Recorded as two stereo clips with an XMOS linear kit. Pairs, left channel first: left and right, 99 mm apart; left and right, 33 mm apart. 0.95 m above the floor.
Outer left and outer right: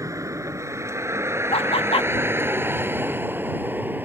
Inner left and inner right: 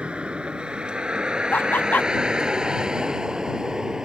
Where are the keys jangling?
No keys jangling in this recording.